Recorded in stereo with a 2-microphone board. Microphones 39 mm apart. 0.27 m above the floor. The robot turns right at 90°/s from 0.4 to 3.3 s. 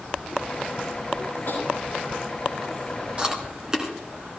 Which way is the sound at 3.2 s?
25° right (ahead or behind).